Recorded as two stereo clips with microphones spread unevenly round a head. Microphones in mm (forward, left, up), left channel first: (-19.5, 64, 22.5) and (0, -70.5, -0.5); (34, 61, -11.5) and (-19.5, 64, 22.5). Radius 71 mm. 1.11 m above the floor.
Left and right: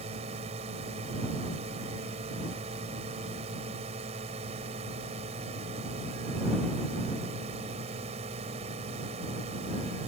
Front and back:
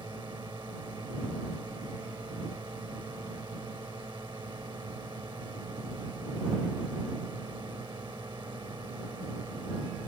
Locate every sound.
0.0 s a drone: 125° right